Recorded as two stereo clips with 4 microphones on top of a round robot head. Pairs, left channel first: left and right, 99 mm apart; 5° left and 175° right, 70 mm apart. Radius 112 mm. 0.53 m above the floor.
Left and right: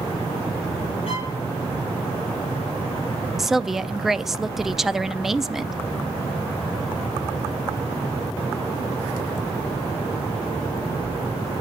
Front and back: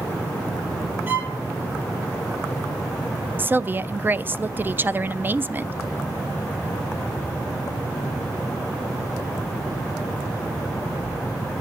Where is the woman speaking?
175° right, 0.6 m.